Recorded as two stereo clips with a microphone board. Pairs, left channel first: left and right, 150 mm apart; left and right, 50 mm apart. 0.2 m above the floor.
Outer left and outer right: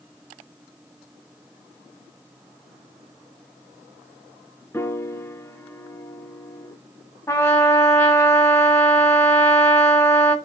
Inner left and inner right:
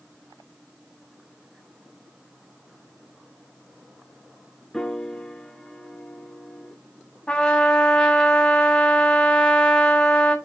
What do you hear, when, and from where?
4.7 s a piano: 15° left (ahead or behind), 0.7 m
7.3 s a trumpet: 15° left (ahead or behind), 1.5 m